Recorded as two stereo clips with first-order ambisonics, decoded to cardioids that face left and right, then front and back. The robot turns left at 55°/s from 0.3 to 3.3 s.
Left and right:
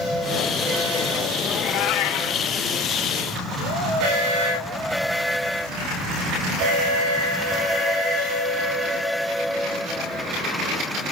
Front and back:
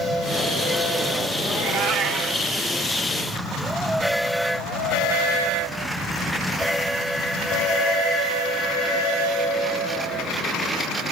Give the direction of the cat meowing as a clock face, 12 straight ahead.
7 o'clock.